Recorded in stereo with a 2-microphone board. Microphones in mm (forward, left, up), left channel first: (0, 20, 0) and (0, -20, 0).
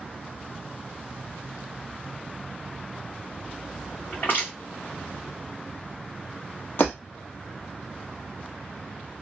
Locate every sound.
4.1 s crushing: 50° left (ahead or behind), 2.0 m
6.8 s breaking glass: 50° left (ahead or behind), 1.5 m